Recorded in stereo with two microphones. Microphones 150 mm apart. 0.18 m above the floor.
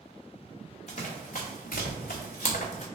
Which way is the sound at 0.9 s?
45° left (ahead or behind).